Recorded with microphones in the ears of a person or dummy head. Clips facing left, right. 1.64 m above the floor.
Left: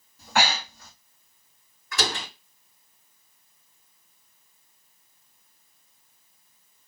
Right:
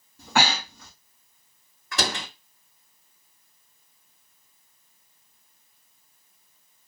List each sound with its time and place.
0.2 s breathing: 70° right (ahead or behind), 2.5 m
1.9 s a door slam: 50° right (ahead or behind), 2.5 m